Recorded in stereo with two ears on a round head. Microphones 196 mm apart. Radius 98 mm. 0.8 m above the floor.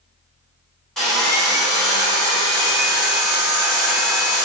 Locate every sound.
1.0 s sawing: centre (ahead or behind), 1.8 m